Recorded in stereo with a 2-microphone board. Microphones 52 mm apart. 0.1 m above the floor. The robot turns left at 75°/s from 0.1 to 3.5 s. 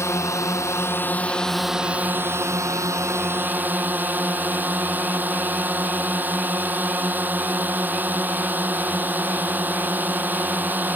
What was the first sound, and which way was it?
A drone, 115° left.